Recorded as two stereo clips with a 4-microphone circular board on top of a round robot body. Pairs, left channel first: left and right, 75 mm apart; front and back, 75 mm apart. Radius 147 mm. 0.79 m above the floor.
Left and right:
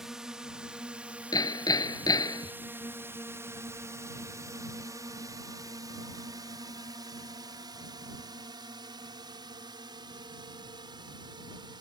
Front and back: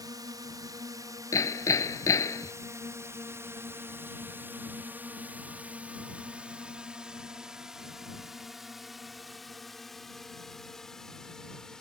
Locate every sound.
0.0 s a drone: 170° right; by 11.8 s 80° right
1.3 s hammering: 50° left